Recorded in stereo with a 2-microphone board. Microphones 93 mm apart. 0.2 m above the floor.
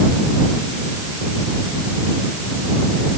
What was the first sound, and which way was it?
Only background noise.